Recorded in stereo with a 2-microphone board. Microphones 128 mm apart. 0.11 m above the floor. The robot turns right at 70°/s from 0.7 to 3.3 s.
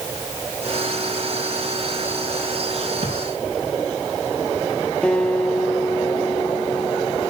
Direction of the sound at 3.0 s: 65° left (ahead or behind).